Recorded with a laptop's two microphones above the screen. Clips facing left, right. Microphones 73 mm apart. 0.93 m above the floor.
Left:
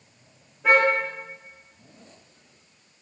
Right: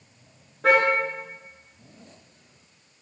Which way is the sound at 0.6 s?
85° right.